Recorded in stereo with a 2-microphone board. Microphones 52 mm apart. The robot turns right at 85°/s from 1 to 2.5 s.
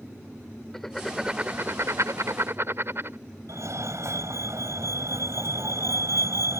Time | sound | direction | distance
0.7 | writing | 5° left (ahead or behind) | ?
3.5 | a fire alarm | 70° right (ahead or behind) | ?